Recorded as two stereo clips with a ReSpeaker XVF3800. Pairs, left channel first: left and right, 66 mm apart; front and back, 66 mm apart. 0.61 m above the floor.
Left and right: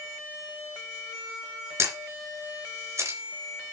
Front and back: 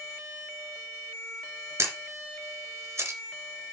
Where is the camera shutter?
135° right, 2.5 m.